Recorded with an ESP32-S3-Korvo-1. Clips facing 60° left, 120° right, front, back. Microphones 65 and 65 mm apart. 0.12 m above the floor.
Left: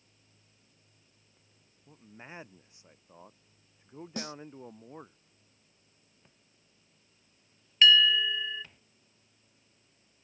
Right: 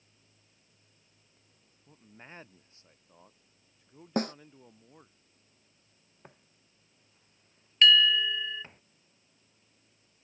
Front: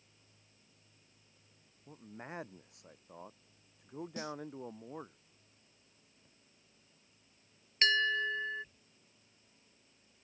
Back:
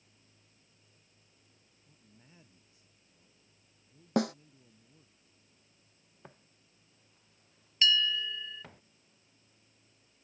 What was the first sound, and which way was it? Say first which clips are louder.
A man speaking: left 3 dB, front 17 dB; 25° right.